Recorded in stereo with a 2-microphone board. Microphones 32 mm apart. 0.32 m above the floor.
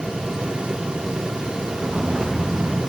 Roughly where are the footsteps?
Centre.